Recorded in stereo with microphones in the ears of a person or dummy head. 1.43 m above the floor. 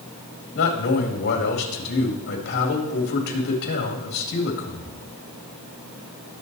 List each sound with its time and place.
0.6 s a man speaking: 60° left (ahead or behind), 2 m